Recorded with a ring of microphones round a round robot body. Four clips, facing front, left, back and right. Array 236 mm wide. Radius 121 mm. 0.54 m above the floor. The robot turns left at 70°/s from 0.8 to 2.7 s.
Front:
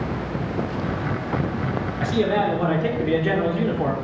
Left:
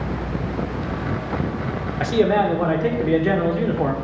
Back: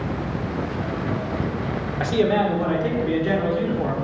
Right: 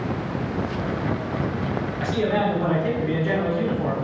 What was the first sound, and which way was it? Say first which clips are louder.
A man speaking: left 6 dB, back 1 dB; 125° left.